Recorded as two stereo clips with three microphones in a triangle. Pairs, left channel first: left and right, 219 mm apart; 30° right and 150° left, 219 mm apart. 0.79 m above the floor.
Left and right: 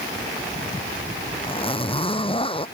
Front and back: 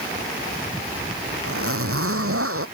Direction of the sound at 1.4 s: 155° left.